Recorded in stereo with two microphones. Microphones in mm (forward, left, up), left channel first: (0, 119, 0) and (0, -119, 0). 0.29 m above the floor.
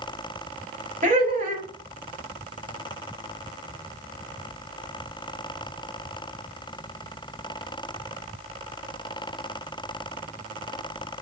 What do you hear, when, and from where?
1.0 s laughter: 35° right (ahead or behind), 1.2 m